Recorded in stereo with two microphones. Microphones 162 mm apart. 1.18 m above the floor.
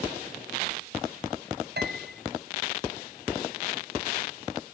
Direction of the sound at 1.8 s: 85° right.